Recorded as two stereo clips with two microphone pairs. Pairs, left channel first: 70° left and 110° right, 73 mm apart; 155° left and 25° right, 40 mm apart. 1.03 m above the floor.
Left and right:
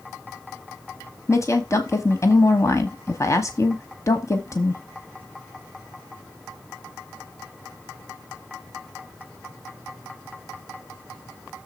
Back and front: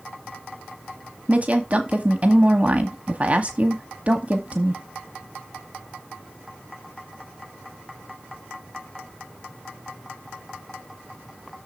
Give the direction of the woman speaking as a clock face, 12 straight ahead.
11 o'clock.